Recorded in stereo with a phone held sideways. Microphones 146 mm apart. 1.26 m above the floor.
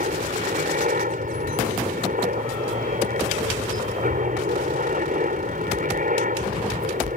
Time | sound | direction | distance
0.0 | a helicopter | 65° right (ahead or behind) | ?